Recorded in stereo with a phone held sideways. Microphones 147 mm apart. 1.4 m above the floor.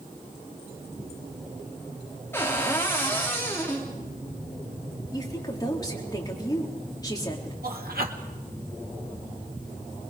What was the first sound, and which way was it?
A cupboard door, 15° left (ahead or behind).